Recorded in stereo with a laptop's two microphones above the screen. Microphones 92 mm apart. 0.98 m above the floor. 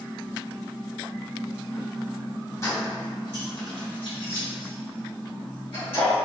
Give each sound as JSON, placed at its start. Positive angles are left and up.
{"t": 2.6, "sound": "keys jangling", "side_deg": 35, "distance_m": 1.0}